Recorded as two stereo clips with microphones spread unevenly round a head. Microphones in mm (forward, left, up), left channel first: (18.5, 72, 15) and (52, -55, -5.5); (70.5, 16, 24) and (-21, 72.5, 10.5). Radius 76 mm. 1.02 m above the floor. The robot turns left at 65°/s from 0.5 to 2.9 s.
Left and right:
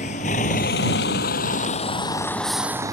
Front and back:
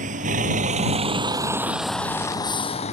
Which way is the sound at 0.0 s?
155° left.